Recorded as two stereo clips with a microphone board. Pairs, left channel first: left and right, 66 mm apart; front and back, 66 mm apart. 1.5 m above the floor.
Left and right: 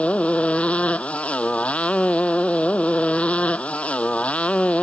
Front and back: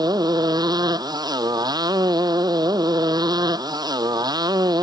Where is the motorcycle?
165° left.